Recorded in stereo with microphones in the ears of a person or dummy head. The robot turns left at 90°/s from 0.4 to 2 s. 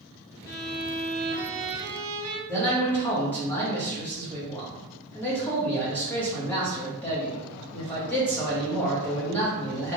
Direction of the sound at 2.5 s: 5° left (ahead or behind).